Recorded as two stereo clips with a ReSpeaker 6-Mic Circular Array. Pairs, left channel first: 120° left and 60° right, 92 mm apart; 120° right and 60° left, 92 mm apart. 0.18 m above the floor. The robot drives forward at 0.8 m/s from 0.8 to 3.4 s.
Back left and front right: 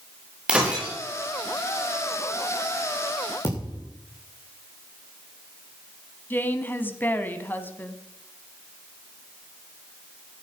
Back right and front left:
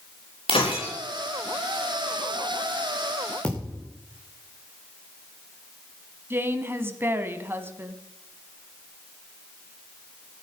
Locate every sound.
0.5 s breaking glass: 140° right, 5.5 m
3.4 s a thud: 160° left, 6 m
6.3 s a woman speaking: 85° left, 1.3 m